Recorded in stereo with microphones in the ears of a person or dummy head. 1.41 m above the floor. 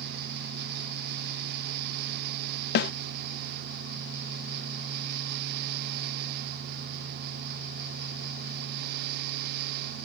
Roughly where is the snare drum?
Left.